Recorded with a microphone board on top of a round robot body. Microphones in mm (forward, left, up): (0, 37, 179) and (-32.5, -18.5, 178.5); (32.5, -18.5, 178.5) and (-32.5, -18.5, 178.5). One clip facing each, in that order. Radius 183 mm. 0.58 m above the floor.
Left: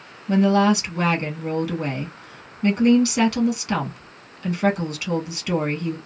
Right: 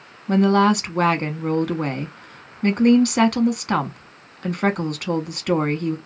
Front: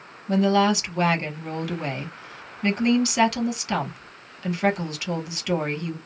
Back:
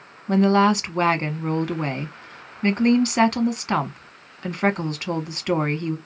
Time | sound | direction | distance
0.3 | a woman speaking | 140° right | 1.1 m